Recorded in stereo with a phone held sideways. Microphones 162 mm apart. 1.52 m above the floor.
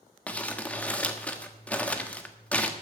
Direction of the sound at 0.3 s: 10° left (ahead or behind).